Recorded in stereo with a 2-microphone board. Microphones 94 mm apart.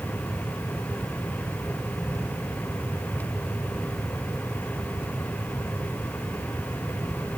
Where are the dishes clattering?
I don't hear dishes clattering.